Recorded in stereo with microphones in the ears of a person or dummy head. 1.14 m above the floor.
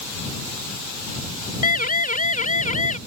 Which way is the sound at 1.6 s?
50° left (ahead or behind).